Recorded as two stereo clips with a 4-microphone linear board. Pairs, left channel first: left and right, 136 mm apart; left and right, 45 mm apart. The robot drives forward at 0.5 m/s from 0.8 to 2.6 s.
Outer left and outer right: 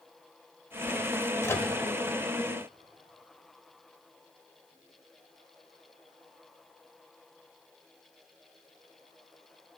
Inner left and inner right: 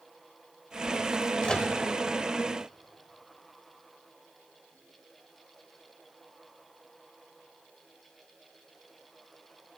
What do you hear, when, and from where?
1.4 s a microwave: 20° left (ahead or behind), 0.7 m